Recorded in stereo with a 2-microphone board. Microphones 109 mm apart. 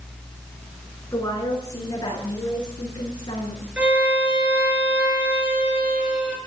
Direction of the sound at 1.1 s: 30° left (ahead or behind).